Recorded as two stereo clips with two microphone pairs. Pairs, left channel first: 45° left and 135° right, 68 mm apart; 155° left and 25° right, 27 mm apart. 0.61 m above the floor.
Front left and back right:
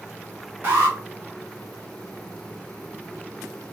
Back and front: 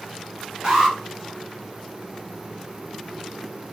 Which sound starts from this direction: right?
An alarm, at 0.6 s.